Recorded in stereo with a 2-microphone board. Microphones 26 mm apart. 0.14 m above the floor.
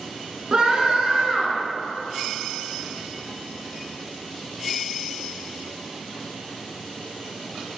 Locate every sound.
0.5 s a scream: 40° right (ahead or behind), 1.4 m